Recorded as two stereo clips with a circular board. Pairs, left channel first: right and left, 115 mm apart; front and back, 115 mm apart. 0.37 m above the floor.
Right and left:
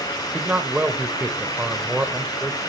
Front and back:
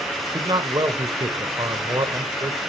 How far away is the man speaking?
About 1.3 m.